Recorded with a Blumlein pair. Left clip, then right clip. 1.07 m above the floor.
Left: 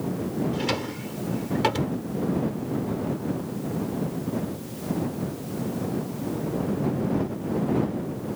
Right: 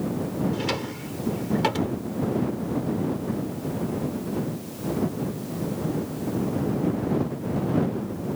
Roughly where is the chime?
No chime in this recording.